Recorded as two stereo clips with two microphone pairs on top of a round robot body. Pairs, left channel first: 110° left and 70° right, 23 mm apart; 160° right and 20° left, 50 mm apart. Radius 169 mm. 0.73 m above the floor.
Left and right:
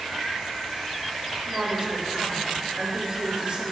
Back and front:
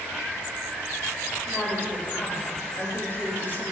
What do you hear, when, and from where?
1.5 s a woman speaking: 115° right, 4.5 m